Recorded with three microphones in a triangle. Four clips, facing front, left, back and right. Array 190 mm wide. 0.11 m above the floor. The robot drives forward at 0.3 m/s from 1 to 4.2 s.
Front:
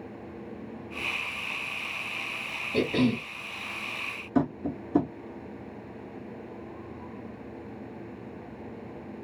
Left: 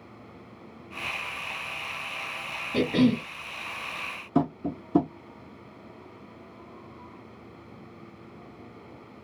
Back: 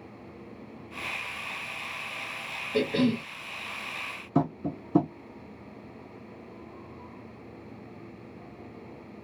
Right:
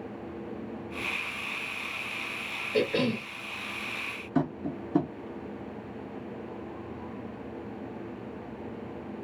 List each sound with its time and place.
2.7 s a cough: 50° left, 1.5 m; by 3.3 s 60° left, 1.5 m
4.3 s tapping: 135° left, 0.8 m